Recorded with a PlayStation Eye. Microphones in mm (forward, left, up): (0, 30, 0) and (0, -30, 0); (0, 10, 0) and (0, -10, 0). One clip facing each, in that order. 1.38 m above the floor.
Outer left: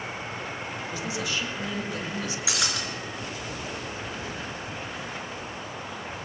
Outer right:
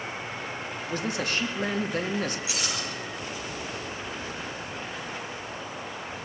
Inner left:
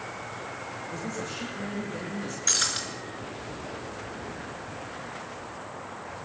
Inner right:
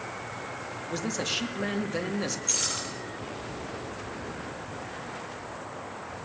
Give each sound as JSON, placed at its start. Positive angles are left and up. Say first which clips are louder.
{"t": 0.9, "sound": "a man speaking", "louder": "outer right 3 dB, inner right 7 dB", "side_deg": -50, "distance_m": 2.5}
{"t": 2.5, "sound": "breaking glass", "louder": "outer left 2 dB, inner left 6 dB", "side_deg": 80, "distance_m": 5.5}